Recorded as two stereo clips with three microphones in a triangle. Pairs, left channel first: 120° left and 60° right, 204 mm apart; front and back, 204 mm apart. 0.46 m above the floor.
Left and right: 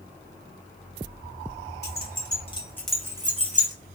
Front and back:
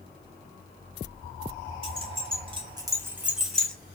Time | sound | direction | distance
1.8 | keys jangling | 125° left | 1.2 m